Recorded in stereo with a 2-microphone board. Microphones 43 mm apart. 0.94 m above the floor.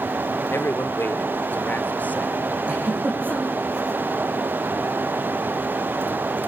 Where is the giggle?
35° right (ahead or behind), 10 m.